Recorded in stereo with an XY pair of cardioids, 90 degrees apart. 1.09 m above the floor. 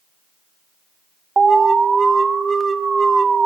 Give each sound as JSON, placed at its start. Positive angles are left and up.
{"t": 1.4, "sound": "an alarm", "azimuth_deg": -35, "distance_m": 0.9}